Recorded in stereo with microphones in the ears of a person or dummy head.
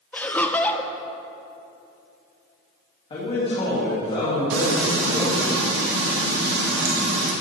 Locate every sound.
0.1 s laughter: 10° left (ahead or behind), 0.8 m
3.1 s a man speaking: 25° left (ahead or behind), 2 m
4.5 s frying: 70° right (ahead or behind), 1.6 m